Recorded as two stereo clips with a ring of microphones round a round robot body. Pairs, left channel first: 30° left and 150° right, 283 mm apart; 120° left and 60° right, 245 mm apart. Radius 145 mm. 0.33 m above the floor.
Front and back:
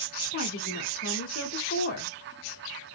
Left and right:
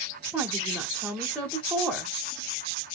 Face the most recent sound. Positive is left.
turn(degrees=35)